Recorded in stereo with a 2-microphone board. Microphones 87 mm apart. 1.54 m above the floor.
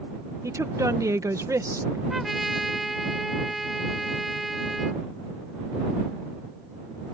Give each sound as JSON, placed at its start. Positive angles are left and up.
{"t": 0.4, "sound": "a woman speaking", "side_deg": -40}
{"t": 2.1, "sound": "a trumpet", "side_deg": 0}